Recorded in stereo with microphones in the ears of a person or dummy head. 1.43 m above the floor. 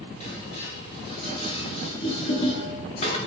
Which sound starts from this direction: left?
Dishes clattering, at 0.2 s.